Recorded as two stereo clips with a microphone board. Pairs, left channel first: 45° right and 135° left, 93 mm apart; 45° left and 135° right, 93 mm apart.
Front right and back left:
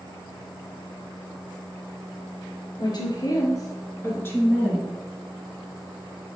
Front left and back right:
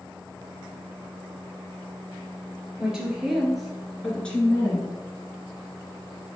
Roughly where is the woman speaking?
Ahead right.